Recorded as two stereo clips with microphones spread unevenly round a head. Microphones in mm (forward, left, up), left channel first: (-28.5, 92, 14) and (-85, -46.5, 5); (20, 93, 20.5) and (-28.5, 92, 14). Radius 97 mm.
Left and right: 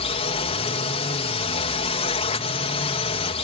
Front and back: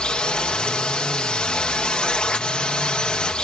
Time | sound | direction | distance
0.0 | a drone | 60° left | ?